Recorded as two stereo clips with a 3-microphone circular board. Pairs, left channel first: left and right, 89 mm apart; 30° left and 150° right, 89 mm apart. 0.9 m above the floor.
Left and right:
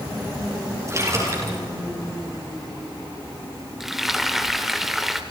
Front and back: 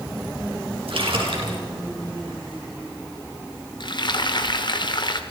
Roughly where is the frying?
Ahead.